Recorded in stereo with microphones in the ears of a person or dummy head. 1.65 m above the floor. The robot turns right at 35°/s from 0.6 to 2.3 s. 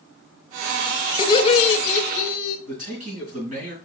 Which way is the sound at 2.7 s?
35° right (ahead or behind).